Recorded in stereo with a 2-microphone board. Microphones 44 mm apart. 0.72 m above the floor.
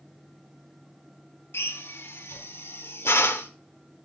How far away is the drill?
About 0.9 m.